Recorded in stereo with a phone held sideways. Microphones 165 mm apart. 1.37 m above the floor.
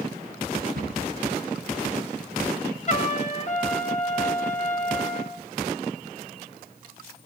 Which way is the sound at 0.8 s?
65° right (ahead or behind).